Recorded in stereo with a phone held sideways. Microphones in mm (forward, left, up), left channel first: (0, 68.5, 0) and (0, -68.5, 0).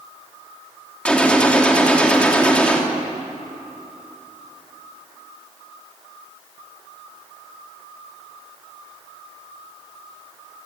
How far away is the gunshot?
About 3 m.